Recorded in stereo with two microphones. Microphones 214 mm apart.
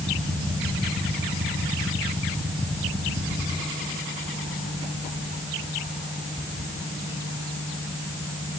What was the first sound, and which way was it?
Only background noise.